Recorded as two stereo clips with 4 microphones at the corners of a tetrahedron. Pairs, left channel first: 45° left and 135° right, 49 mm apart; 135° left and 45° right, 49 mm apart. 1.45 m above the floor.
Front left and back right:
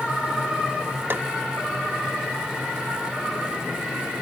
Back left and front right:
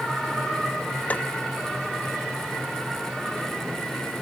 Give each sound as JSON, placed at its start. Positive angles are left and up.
{"t": 1.1, "sound": "tapping", "azimuth_deg": -170}